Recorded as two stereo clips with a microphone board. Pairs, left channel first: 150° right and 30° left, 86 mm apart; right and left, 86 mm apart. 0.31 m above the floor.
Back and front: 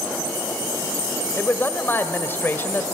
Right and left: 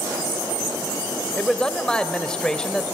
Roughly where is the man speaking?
Behind.